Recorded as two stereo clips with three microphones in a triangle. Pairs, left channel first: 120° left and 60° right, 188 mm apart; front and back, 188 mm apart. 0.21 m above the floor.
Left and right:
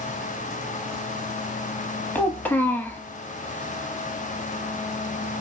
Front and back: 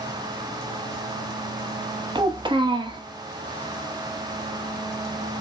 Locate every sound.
2.1 s a child speaking: 175° right, 0.6 m